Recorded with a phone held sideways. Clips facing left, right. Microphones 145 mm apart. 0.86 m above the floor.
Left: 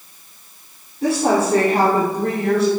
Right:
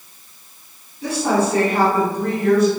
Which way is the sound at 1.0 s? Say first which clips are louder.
Left 2 dB; 65° left (ahead or behind).